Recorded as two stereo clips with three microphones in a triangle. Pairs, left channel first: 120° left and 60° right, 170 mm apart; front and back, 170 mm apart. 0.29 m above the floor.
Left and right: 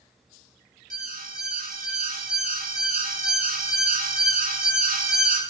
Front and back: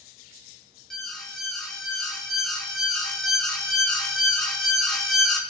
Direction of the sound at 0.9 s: 90° right.